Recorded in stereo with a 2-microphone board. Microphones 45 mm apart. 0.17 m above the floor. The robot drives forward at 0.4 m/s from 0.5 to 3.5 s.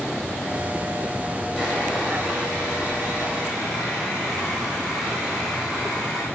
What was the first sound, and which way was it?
Sawing, centre (ahead or behind).